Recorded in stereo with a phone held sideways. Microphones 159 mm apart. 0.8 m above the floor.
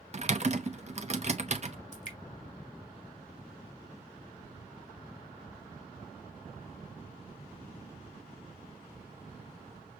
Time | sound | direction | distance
0.1 | typing on a keyboard | 45° right (ahead or behind) | 0.7 m
1.9 | dripping | 50° left (ahead or behind) | 1.5 m